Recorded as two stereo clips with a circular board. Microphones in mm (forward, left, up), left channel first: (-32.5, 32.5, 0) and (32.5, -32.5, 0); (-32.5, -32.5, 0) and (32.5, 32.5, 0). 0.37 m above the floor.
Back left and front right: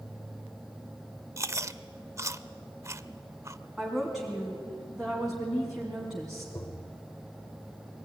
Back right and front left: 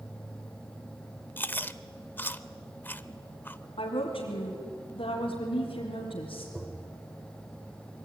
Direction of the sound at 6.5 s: 110° left.